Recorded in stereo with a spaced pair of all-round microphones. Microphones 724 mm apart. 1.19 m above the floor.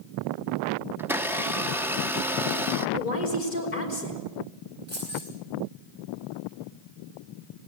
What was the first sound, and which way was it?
A blender, 5° right (ahead or behind).